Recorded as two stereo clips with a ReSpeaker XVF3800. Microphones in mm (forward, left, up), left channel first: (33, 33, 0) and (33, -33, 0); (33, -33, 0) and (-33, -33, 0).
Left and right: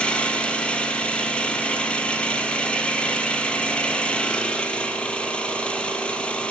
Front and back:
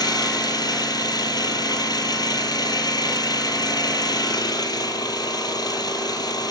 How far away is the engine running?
About 2.5 m.